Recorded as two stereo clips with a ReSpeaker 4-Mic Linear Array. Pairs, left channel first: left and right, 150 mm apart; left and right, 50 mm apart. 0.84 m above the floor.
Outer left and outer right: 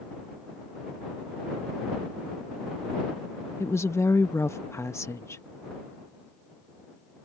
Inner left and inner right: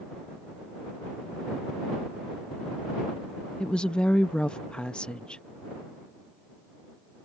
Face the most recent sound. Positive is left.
turn(degrees=20)  # may be behind; listen again after turning